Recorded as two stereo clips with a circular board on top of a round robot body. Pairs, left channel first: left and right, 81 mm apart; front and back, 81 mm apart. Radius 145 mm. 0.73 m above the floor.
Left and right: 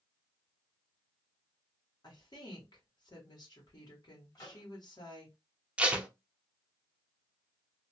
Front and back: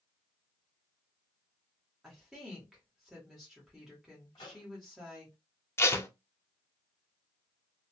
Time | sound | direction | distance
2.0 | a woman speaking | 100° left | 1.4 m
4.3 | a microwave | 40° left | 1.6 m
5.8 | tape being pulled | 25° right | 0.7 m